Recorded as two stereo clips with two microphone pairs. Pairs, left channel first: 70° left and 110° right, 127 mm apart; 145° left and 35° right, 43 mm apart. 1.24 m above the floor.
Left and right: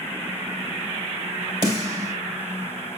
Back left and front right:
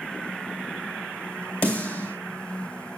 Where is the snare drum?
165° right, 2.5 m.